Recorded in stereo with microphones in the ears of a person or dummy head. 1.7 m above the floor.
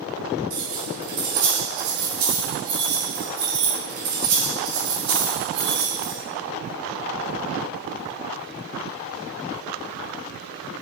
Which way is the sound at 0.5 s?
55° right (ahead or behind).